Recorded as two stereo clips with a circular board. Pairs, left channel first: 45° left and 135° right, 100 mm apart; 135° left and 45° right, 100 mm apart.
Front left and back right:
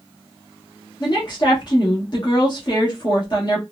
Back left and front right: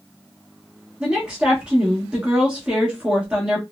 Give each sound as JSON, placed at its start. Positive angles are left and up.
{"t": 1.0, "sound": "a woman speaking", "azimuth_deg": 30, "distance_m": 1.1}